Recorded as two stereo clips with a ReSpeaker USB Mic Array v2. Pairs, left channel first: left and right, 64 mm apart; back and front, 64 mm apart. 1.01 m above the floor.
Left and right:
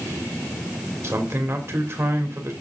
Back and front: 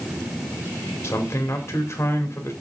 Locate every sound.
1.0 s a man speaking: 135° right, 2.5 m